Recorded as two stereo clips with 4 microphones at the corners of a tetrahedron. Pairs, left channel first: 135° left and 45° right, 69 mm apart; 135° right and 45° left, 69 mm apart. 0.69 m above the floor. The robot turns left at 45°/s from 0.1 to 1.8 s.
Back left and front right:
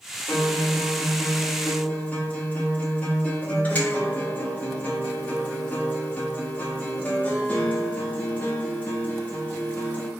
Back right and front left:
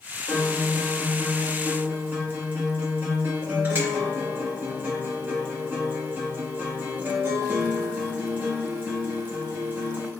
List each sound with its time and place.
0.3 s a guitar: 155° left, 0.9 m; by 10.1 s 85° left, 0.9 m